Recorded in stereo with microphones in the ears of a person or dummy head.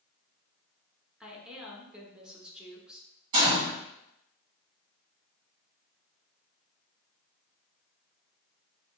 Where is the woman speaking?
5° right (ahead or behind), 0.9 m.